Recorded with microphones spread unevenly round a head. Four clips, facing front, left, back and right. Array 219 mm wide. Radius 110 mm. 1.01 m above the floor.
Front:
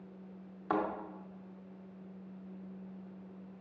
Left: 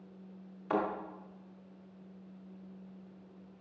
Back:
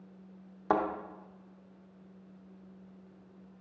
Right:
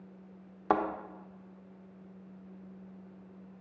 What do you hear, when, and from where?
0.7 s a thud: 125° right, 0.9 m